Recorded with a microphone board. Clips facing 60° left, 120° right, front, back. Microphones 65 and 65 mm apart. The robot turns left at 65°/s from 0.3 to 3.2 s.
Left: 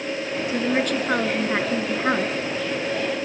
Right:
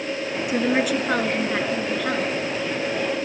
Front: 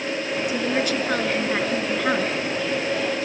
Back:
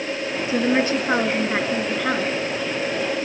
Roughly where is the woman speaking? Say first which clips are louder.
Right 2 dB, back 5 dB; behind.